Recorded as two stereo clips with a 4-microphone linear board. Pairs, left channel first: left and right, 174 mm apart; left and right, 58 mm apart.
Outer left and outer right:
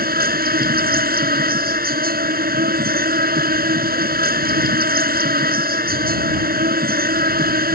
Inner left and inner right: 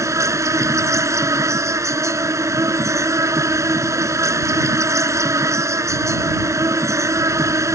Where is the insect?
60° right (ahead or behind).